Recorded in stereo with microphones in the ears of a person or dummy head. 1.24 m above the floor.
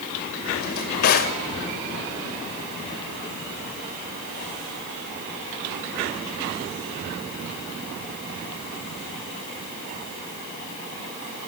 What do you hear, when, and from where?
0.6 s a drawer: 45° left (ahead or behind), 1.9 m